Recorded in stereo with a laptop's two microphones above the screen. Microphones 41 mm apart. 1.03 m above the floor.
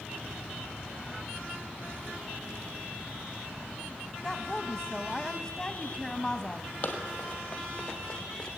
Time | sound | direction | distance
4.2 | a woman speaking | centre (ahead or behind) | 0.8 m
6.8 | running footsteps | 30° left (ahead or behind) | 1.7 m